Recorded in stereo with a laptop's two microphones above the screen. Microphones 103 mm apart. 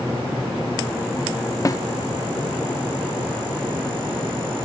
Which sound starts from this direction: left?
A snare drum, at 1.6 s.